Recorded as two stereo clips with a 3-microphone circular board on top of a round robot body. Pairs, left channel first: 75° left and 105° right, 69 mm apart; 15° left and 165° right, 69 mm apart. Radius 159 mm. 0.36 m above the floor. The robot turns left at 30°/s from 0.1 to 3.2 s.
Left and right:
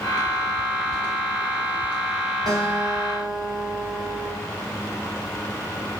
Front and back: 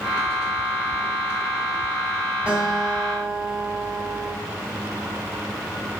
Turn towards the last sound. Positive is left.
turn(degrees=-115)